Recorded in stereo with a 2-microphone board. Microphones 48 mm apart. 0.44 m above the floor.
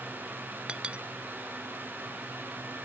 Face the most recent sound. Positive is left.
turn(degrees=-20)  # may be behind; listen again after turning